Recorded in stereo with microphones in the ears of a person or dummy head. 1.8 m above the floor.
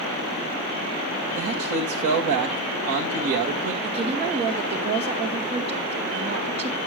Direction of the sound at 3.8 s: 30° right (ahead or behind).